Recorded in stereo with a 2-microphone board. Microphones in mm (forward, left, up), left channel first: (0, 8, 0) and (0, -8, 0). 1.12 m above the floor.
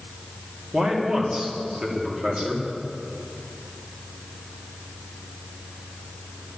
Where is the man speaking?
65° right (ahead or behind), 2.5 m.